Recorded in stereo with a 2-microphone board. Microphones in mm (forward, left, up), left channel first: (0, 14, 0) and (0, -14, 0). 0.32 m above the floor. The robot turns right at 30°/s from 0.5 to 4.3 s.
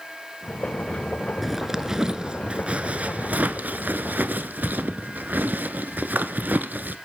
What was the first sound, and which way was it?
A zipper, 5° right (ahead or behind).